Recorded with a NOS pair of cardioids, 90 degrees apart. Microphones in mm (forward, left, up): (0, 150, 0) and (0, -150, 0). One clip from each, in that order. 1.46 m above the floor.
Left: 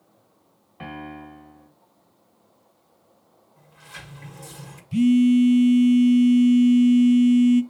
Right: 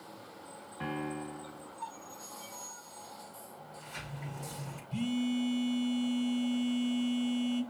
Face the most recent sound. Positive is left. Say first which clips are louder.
# left 16 dB
turn(degrees=40)